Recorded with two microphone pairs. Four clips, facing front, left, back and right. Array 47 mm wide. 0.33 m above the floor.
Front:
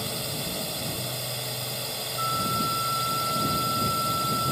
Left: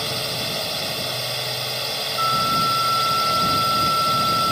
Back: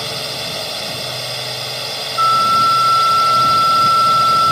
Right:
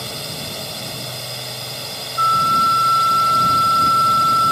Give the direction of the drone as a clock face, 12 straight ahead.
7 o'clock.